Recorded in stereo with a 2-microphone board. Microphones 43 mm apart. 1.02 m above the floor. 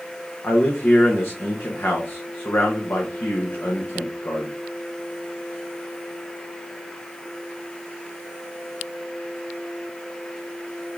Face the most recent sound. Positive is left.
turn(degrees=60)  # may be behind; listen again after turning